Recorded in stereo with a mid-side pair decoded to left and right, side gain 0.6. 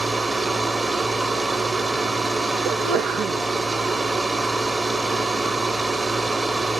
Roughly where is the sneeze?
Ahead right.